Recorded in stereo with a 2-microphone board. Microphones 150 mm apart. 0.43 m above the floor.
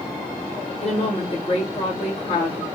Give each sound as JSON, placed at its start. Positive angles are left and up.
{"t": 0.8, "sound": "a woman speaking", "side_deg": 45, "distance_m": 1.1}